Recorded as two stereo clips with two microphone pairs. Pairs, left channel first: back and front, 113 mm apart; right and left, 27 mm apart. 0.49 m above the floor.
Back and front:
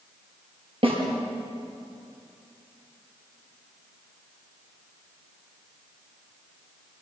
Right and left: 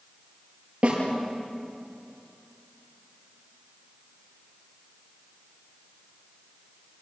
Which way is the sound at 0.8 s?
35° left.